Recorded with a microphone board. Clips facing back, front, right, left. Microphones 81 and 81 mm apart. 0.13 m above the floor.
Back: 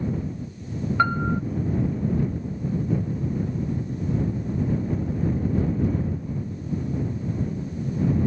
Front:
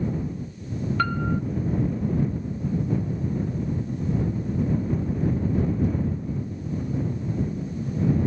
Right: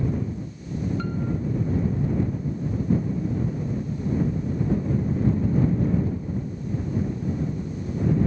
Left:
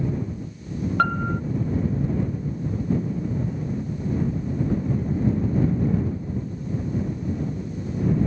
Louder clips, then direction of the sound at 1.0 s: Back 4 dB, left 5 dB; 110° left.